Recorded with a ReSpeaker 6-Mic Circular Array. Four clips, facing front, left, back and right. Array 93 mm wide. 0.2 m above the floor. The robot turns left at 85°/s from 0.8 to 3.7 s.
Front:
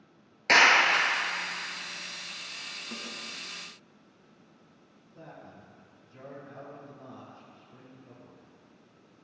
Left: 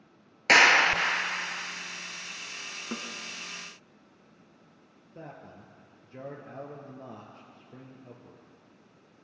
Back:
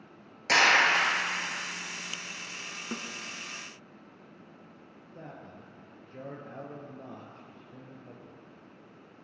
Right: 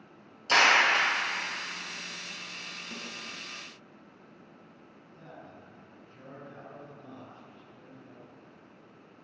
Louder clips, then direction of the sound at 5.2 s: Left 4 dB, back 1 dB; 115° left.